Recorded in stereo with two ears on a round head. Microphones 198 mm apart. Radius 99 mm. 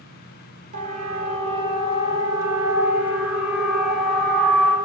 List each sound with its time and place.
0.7 s a siren: 35° right (ahead or behind), 4 m; by 4.8 s 10° left (ahead or behind), 5 m